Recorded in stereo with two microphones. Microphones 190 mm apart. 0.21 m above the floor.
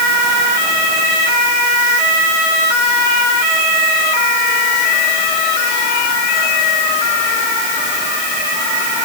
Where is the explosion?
No explosion in this recording.